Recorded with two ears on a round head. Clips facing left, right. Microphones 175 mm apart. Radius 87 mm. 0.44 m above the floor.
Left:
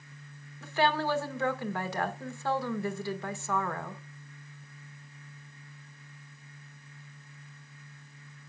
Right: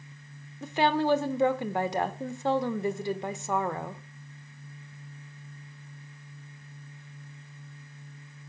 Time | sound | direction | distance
0.6 | a woman speaking | 20° right (ahead or behind) | 1.1 m